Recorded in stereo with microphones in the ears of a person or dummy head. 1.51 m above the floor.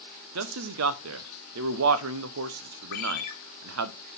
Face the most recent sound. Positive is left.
turn(degrees=50)  # may be behind; listen again after turning